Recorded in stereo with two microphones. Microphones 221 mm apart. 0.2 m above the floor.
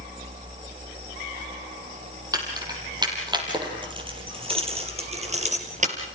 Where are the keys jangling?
15° right (ahead or behind), 5.5 m; by 6.0 s 35° right (ahead or behind), 3.5 m.